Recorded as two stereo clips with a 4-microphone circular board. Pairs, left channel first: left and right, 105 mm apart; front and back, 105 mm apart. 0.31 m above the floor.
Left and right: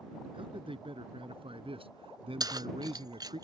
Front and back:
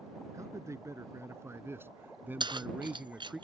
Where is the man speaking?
120° right; by 3.4 s 100° right.